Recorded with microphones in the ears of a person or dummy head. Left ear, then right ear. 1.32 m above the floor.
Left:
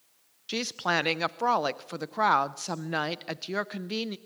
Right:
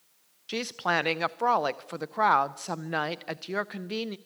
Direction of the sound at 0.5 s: 5° right (ahead or behind).